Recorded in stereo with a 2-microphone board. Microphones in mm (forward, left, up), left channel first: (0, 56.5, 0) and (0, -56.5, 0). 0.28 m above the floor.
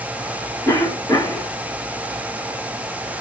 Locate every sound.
0.7 s a cough: 30° left (ahead or behind), 2 m